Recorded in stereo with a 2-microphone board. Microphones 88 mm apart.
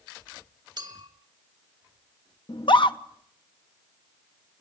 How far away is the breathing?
I don't hear breathing.